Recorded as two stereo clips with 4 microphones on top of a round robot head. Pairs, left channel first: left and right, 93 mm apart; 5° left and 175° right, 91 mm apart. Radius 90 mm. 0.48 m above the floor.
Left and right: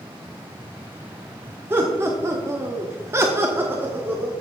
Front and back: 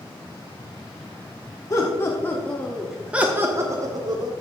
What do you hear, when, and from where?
1.7 s laughter: 35° right, 1.4 m; by 4.3 s 160° right, 1.5 m